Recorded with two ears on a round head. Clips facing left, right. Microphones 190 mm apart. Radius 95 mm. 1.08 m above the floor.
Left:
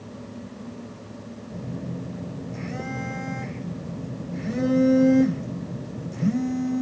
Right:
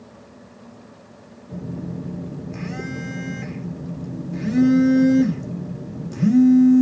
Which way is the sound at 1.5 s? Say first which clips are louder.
Right 4 dB; 75° right (ahead or behind).